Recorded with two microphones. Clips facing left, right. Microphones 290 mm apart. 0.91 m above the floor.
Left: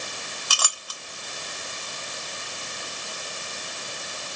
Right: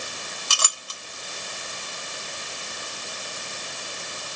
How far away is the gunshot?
I don't hear a gunshot.